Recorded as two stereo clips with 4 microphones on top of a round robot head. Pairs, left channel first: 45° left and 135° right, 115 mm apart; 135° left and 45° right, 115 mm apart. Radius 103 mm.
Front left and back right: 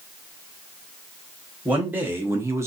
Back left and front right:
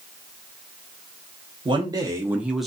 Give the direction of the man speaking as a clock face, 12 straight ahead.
2 o'clock.